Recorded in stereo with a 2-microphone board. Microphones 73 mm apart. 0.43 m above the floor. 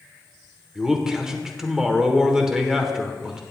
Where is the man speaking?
10° right (ahead or behind), 1.2 m.